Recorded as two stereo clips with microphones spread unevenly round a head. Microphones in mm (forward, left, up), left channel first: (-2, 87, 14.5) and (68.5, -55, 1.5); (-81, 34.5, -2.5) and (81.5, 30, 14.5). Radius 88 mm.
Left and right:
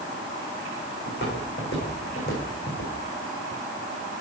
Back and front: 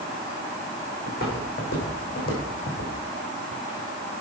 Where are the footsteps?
145° left, 5.5 m; by 2.9 s 155° left, 4 m.